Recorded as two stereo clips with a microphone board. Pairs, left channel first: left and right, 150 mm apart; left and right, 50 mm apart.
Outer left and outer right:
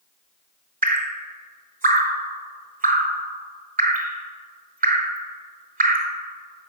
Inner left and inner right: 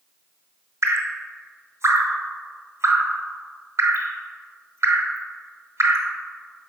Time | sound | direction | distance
0.8 | dripping | 75° right (ahead or behind) | 0.8 m